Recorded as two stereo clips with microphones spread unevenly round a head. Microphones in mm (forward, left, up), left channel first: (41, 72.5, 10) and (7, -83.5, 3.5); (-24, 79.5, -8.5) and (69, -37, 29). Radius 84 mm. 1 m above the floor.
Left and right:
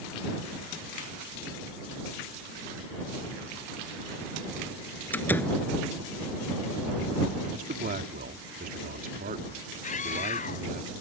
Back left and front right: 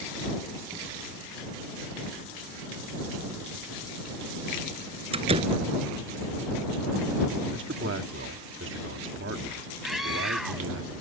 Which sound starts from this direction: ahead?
A door slam, at 5.1 s.